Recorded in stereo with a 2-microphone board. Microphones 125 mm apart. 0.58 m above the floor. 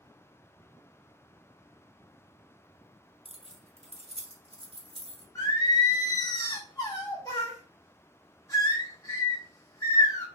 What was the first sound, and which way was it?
Keys jangling, 50° right (ahead or behind).